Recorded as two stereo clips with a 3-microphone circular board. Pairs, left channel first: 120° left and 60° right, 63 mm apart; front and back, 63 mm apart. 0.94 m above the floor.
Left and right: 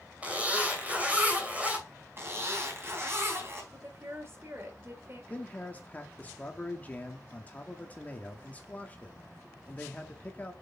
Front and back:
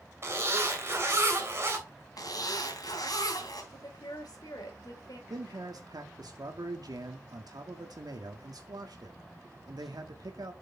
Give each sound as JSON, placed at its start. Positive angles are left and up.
{"t": 0.2, "sound": "a zipper", "azimuth_deg": -130, "distance_m": 3.0}
{"t": 2.2, "sound": "a zipper", "azimuth_deg": -10, "distance_m": 3.0}
{"t": 3.7, "sound": "a woman speaking", "azimuth_deg": -10, "distance_m": 3.5}
{"t": 5.3, "sound": "a man speaking", "azimuth_deg": -175, "distance_m": 1.5}